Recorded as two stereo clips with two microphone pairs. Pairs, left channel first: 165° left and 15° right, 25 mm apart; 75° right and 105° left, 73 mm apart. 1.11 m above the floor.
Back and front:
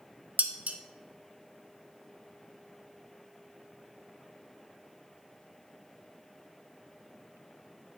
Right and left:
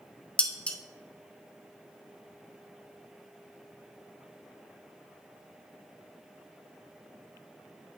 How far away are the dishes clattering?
About 0.6 m.